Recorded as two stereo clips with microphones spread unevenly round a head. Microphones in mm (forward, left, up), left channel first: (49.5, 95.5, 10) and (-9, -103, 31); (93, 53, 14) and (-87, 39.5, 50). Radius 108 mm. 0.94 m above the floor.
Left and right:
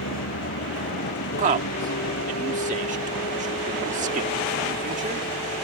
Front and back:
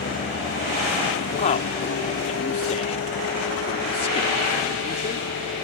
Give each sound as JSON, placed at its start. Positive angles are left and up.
{"t": 0.0, "sound": "a vehicle", "azimuth_deg": 45}
{"t": 1.4, "sound": "a man speaking", "azimuth_deg": -50}